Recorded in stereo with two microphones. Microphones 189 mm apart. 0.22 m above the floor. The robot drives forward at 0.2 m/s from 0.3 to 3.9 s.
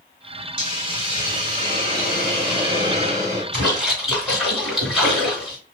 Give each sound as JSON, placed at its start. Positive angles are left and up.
{"t": 0.6, "sound": "a hiss", "side_deg": -25, "distance_m": 1.8}
{"t": 3.5, "sound": "a splash", "side_deg": -5, "distance_m": 2.5}